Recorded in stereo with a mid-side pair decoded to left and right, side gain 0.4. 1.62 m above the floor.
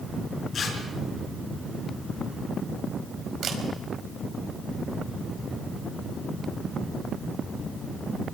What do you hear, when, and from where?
0.5 s tearing paper: 65° left, 6 m
3.4 s a camera shutter: 70° right, 4.5 m